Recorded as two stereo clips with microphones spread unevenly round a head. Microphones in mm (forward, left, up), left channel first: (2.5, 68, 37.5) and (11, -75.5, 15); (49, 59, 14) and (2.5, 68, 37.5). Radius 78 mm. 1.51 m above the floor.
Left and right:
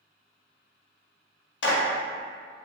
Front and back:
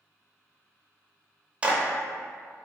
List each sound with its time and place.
1.6 s a clap: 105° left, 0.6 m